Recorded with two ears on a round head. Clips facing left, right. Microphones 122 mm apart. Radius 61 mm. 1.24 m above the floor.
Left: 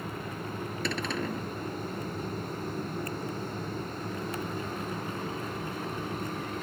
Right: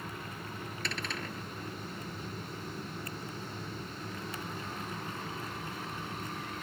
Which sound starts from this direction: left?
A cupboard door, at 0.8 s.